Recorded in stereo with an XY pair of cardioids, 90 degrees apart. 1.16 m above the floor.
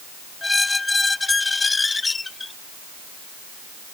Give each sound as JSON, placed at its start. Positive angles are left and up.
{"t": 0.4, "sound": "a squeak", "azimuth_deg": 25}